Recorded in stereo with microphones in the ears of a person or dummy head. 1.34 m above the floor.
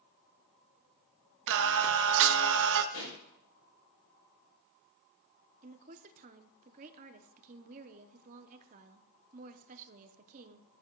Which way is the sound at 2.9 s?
80° left.